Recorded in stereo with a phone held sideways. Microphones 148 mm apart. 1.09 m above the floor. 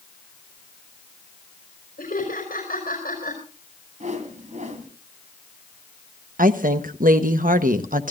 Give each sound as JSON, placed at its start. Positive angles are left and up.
{"t": 2.0, "sound": "laughter", "side_deg": 70, "distance_m": 4.5}
{"t": 4.0, "sound": "a whoosh", "side_deg": -55, "distance_m": 2.0}
{"t": 6.4, "sound": "a woman speaking", "side_deg": -70, "distance_m": 1.1}